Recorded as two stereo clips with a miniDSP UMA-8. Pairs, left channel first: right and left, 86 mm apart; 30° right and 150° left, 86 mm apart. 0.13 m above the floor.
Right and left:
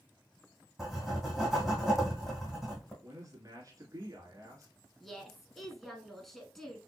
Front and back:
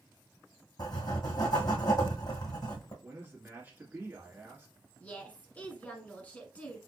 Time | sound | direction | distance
0.8 | writing | 5° left | 2 m
3.0 | a man speaking | 95° left | 2.0 m
5.0 | a woman speaking | 5° right | 1.1 m